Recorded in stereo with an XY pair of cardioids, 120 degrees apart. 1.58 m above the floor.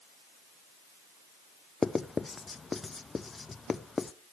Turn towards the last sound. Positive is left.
turn(degrees=20)